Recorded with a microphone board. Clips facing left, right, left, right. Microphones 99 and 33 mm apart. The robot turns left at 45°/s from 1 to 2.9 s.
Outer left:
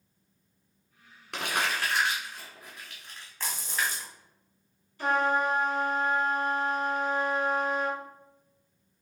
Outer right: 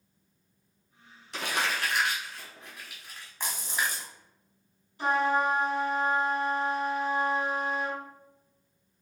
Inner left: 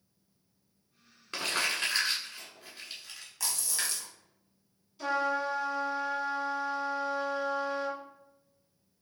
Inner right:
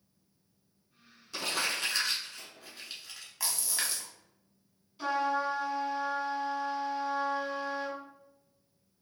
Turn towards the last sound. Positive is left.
turn(degrees=-20)  # may be behind; listen again after turning